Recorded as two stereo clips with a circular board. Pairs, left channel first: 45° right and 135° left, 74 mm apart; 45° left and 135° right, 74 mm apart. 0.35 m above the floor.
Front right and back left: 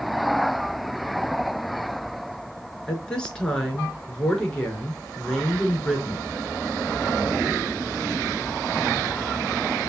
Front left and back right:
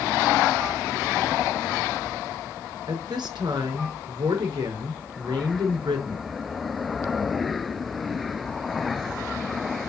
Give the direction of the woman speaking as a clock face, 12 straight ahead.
4 o'clock.